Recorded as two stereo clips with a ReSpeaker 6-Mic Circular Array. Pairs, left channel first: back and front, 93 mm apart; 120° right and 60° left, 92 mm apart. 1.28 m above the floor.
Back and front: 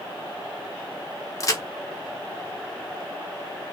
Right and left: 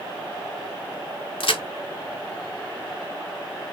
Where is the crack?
130° right, 0.6 m.